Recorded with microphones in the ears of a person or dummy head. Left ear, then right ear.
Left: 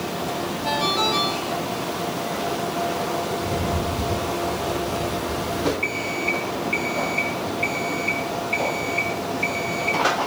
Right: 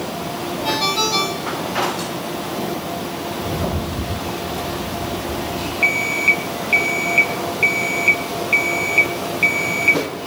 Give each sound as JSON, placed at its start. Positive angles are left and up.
{"t": 0.6, "sound": "a ringtone", "side_deg": -25, "distance_m": 5.0}
{"t": 3.3, "sound": "a rattle", "side_deg": -60, "distance_m": 2.5}
{"t": 5.8, "sound": "an alarm clock", "side_deg": -45, "distance_m": 1.6}